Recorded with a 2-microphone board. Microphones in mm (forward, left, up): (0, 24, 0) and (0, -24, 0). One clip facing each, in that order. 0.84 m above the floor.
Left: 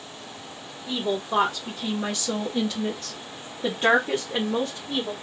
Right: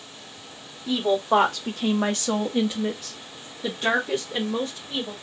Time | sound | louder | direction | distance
0.9 | a woman speaking | right 5 dB | 70° right (ahead or behind) | 1.2 m